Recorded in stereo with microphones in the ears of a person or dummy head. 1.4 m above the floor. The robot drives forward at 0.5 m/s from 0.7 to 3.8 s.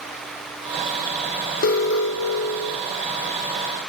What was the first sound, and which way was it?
An alarm, 50° left (ahead or behind).